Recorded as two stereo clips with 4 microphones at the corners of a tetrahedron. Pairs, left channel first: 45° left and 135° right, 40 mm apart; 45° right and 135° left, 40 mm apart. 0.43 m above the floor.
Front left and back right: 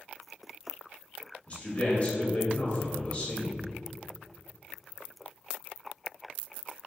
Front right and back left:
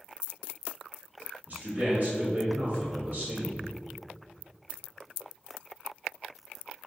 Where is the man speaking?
100° left, 1.8 m.